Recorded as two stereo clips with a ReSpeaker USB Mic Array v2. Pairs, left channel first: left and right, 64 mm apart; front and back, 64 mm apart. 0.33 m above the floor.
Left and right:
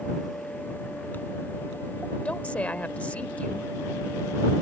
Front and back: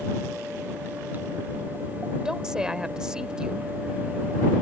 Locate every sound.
2.2 s a woman speaking: 120° left